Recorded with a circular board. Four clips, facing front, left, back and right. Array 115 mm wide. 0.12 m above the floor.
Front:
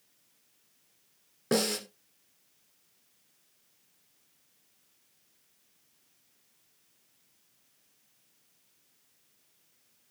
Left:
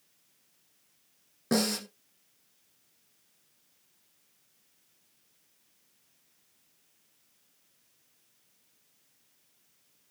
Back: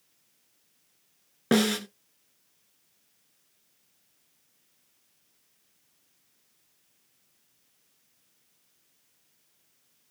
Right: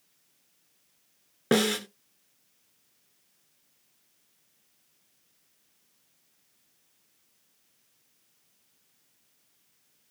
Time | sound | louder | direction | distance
1.5 | a snare drum | right 4 dB, back 5 dB | 130° right | 1.0 m